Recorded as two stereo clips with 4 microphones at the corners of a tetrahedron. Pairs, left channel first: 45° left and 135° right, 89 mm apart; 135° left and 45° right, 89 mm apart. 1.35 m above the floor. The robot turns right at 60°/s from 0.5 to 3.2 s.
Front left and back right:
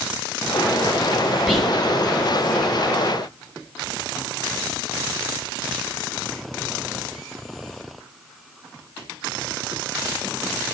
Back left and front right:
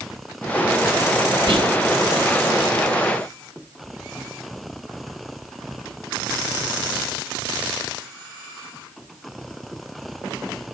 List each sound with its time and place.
1.5 s whispering: 50° right, 1.6 m; by 1.8 s 35° right, 1.6 m